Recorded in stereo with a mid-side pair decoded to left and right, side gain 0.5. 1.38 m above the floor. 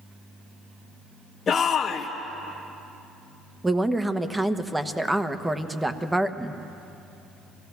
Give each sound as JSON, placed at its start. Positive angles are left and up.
{"t": 1.5, "sound": "a shout", "azimuth_deg": 45, "distance_m": 1.0}
{"t": 3.6, "sound": "a woman speaking", "azimuth_deg": -10, "distance_m": 1.2}